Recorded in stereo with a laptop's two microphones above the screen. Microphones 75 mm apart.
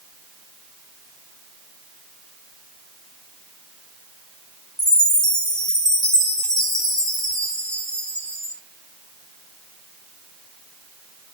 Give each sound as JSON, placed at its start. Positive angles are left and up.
{"t": 4.8, "sound": "a chime", "side_deg": 65, "distance_m": 7.0}